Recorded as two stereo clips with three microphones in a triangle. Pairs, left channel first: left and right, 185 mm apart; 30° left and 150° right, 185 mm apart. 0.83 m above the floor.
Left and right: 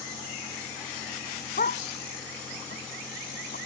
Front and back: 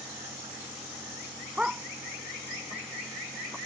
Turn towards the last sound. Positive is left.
turn(degrees=125)